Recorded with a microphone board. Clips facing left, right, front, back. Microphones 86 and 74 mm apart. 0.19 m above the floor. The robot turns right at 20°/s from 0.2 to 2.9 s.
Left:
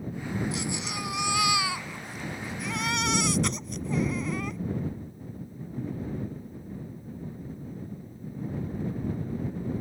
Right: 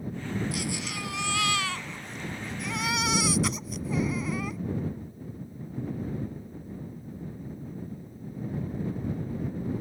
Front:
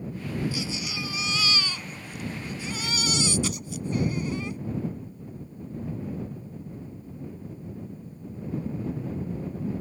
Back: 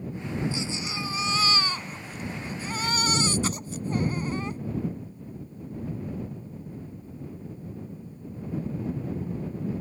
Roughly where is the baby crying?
Behind left.